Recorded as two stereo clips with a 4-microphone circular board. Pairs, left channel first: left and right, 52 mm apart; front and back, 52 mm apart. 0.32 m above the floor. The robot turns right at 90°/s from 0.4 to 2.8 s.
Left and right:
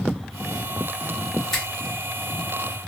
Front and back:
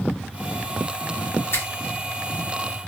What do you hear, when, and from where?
1.5 s a finger snap: 10° left, 1.3 m; by 1.7 s 25° left, 1.3 m